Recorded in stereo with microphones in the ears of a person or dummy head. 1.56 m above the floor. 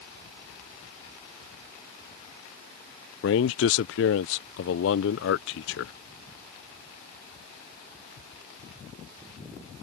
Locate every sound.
3.2 s a man speaking: 70° left (ahead or behind)